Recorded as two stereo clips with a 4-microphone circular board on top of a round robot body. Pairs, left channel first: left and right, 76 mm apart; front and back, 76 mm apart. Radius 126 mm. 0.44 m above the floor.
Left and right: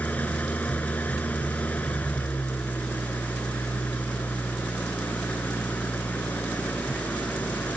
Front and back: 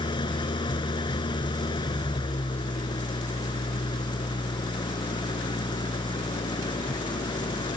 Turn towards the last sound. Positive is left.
turn(degrees=20)